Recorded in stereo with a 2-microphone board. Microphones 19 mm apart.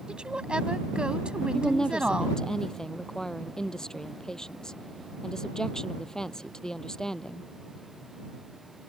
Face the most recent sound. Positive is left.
turn(degrees=30)  # may be behind; listen again after turning